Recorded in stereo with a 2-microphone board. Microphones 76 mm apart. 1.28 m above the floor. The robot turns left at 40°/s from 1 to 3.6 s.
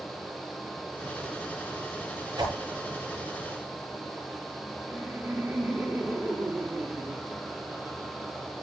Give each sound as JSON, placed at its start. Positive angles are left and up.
{"t": 2.4, "sound": "a whoosh", "side_deg": -85, "distance_m": 7.0}
{"t": 4.9, "sound": "laughter", "side_deg": -25, "distance_m": 3.0}